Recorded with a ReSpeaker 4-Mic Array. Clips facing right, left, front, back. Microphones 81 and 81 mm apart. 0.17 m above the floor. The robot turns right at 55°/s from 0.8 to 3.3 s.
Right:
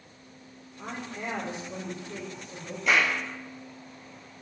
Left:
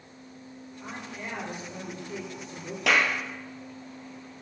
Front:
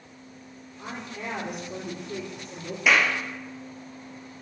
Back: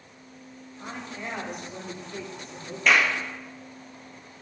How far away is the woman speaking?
About 5 m.